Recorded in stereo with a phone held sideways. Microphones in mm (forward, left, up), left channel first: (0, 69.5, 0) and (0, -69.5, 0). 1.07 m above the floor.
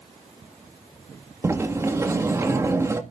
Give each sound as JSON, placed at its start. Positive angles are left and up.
{"t": 1.4, "sound": "a sliding door", "side_deg": -20, "distance_m": 1.8}